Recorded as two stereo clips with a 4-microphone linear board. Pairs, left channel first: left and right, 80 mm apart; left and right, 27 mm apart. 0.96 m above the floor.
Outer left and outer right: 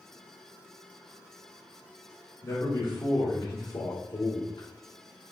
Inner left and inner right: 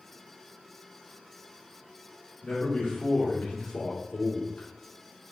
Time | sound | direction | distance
2.4 | a man speaking | 40° left (ahead or behind) | 2 m